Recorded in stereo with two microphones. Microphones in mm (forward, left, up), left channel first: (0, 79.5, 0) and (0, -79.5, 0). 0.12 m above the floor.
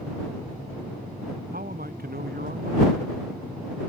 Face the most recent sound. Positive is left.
turn(degrees=-75)  # may be behind; listen again after turning